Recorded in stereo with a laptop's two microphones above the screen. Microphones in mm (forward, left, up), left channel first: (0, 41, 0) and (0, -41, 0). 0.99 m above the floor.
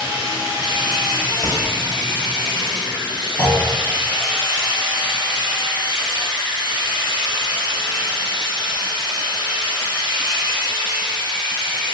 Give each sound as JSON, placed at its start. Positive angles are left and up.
{"t": 0.0, "sound": "a machine running", "side_deg": 70, "distance_m": 1.4}
{"t": 1.4, "sound": "a crack", "side_deg": -30, "distance_m": 1.7}
{"t": 3.4, "sound": "a clunk", "side_deg": 20, "distance_m": 1.0}